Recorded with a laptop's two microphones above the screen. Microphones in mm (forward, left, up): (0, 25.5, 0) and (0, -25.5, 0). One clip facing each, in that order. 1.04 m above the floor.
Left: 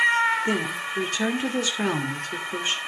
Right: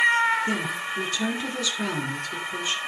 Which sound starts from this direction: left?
A woman speaking, at 0.5 s.